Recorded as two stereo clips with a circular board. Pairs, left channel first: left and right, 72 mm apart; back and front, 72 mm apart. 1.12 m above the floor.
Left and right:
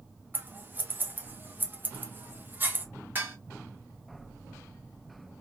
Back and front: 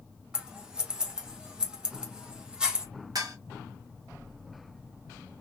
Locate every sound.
0.3 s scissors: 65° right, 0.6 m
3.1 s dishes clattering: 30° right, 1.0 m